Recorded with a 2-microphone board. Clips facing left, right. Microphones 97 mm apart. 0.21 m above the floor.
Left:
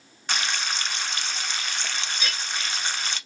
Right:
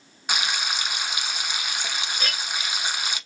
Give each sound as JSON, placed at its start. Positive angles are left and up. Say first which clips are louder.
{"t": 0.3, "sound": "frying", "louder": "right 1 dB", "side_deg": -10, "distance_m": 0.6}
{"t": 2.2, "sound": "a clink", "louder": "right 1 dB", "side_deg": -45, "distance_m": 1.4}